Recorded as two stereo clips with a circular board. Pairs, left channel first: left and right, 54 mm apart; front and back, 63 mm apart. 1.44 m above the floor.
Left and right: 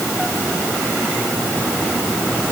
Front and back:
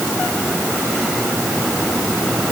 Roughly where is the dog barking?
I don't hear a dog barking.